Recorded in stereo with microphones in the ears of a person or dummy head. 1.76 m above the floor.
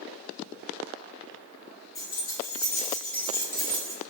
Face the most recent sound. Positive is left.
turn(degrees=10)  # may be behind; listen again after turning